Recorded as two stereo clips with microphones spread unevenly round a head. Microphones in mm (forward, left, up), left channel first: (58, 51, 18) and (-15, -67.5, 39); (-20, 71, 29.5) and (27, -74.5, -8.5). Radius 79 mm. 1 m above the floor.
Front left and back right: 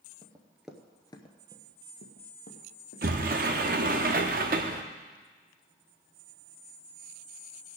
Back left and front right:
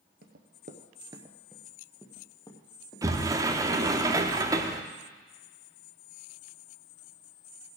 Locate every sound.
0.2 s running footsteps: 80° right, 1.3 m; by 4.0 s 55° left, 4 m
3.0 s a sliding door: 150° right, 0.8 m